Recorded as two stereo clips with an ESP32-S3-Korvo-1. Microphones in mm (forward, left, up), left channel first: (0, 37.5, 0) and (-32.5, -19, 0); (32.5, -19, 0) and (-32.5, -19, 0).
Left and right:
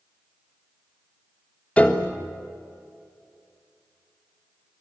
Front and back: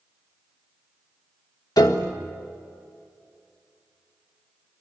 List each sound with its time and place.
1.8 s a piano: 5° right, 1.7 m